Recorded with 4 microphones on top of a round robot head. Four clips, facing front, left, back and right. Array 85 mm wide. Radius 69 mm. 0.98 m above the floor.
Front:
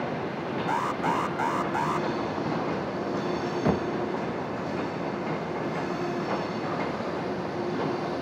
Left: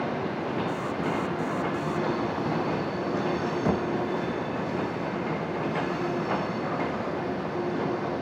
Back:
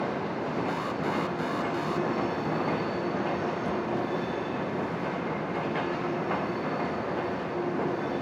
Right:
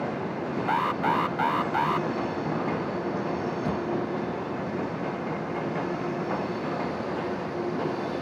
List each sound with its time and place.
0.7 s an alarm: 65° right
3.6 s knocking: 30° left